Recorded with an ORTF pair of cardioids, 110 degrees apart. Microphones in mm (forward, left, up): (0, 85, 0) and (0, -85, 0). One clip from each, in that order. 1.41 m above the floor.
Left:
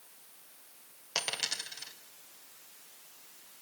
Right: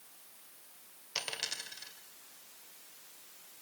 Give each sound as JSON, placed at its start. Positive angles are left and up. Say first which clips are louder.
{"t": 1.1, "sound": "a dropped coin", "louder": "left 4 dB", "azimuth_deg": 15, "distance_m": 2.5}